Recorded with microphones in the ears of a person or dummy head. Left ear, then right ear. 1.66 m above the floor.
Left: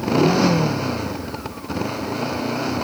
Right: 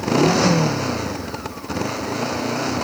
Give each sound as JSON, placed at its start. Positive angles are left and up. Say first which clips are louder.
{"t": 0.0, "sound": "a motorcycle", "louder": "right 1 dB", "side_deg": -10}